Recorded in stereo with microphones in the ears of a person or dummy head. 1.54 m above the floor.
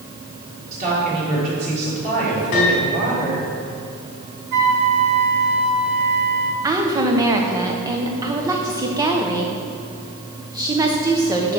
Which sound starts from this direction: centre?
A woman speaking, at 6.6 s.